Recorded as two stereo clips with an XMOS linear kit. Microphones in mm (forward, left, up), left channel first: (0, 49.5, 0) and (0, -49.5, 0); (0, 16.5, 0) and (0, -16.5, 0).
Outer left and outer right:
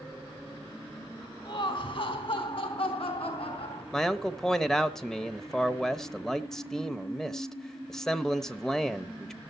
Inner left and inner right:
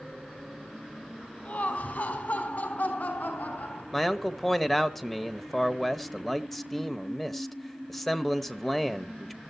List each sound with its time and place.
1.4 s laughter: 55° left (ahead or behind), 3 m; by 3.8 s 70° left (ahead or behind), 3.5 m
3.9 s a man speaking: 5° left (ahead or behind), 0.9 m